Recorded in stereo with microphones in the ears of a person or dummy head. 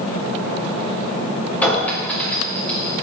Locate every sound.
1.6 s a clink: 10° left (ahead or behind), 2 m